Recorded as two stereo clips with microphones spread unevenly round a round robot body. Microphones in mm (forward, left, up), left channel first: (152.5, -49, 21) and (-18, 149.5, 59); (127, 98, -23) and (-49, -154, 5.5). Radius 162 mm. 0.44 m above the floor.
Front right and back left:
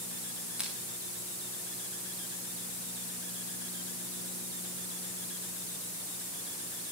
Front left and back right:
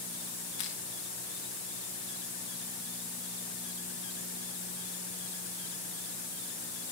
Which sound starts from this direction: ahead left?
Crushing, at 0.6 s.